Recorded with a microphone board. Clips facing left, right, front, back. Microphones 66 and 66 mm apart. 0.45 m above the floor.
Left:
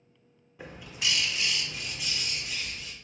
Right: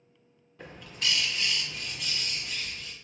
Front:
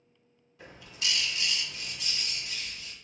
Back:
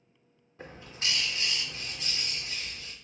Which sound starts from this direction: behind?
A bird, at 0.6 s.